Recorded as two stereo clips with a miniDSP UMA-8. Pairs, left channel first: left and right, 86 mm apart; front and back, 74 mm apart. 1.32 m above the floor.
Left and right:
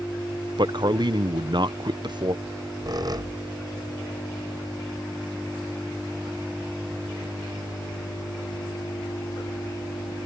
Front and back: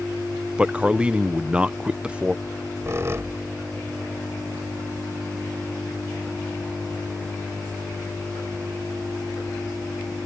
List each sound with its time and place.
0.6 s a man speaking: 105° right
2.5 s a squeak: 130° right